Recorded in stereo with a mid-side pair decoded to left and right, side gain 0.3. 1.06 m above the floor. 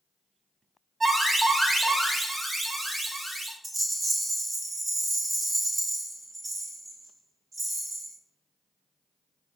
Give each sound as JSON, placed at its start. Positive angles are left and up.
{"t": 1.0, "sound": "an alarm", "azimuth_deg": -55, "distance_m": 2.0}
{"t": 3.6, "sound": "a rattle", "azimuth_deg": -55, "distance_m": 1.7}